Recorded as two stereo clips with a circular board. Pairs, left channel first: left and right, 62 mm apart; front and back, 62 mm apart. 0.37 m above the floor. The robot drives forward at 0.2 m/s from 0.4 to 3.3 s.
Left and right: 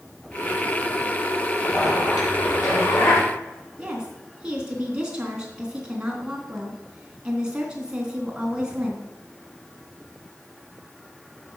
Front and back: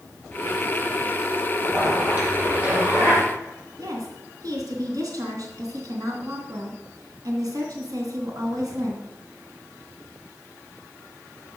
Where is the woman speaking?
165° right, 3 m.